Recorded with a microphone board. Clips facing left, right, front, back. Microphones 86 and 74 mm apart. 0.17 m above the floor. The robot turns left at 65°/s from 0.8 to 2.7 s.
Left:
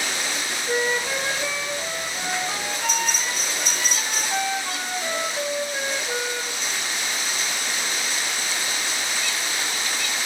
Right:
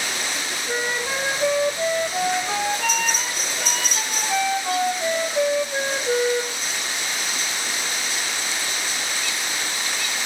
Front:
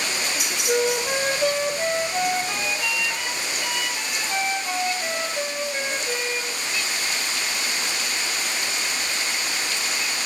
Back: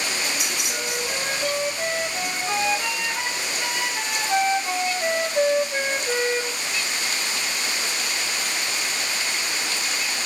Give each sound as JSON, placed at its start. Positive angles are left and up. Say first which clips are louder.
{"t": 0.7, "sound": "a flute", "louder": "left 2 dB, front 7 dB", "azimuth_deg": 10, "distance_m": 1.3}